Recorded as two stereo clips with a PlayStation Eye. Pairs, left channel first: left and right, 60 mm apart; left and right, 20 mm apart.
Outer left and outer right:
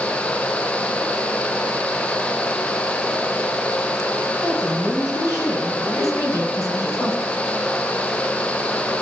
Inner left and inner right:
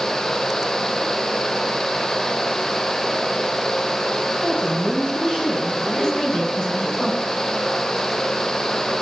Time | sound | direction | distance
4.4 | a woman speaking | 45° left (ahead or behind) | 4.5 m
6.0 | a woman speaking | 65° left (ahead or behind) | 6.5 m